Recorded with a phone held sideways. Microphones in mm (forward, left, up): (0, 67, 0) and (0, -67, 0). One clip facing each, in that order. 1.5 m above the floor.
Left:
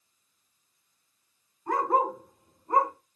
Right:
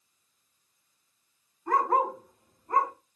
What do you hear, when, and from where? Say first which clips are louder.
1.7 s a dog barking: even; 5° left (ahead or behind), 2.5 m; by 2.9 s 20° left (ahead or behind), 1.8 m